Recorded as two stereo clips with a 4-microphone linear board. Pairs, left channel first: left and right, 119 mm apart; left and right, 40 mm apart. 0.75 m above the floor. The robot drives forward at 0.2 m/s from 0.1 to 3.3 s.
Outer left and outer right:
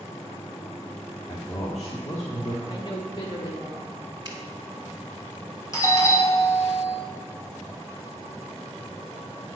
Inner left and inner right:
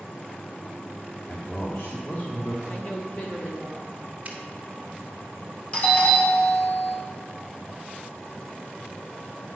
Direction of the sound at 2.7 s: 45° left (ahead or behind).